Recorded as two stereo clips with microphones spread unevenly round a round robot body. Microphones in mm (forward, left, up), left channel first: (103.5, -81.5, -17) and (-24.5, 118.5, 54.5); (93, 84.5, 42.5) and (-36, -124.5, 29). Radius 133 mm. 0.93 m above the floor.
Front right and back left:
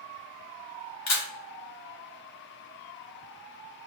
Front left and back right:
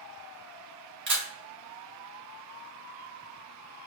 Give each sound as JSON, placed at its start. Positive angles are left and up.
{"t": 1.1, "sound": "a camera shutter", "azimuth_deg": -80, "distance_m": 2.5}